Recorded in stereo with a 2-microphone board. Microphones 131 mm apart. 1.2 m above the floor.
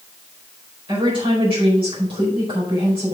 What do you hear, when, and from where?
0.9 s a woman speaking: 45° right (ahead or behind), 4.5 m